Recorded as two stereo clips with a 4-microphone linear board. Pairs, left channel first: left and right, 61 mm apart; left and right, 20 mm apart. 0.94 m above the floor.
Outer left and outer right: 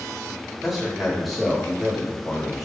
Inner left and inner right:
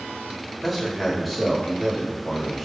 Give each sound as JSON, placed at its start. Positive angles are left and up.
{"t": 0.6, "sound": "a man speaking", "side_deg": -5, "distance_m": 1.1}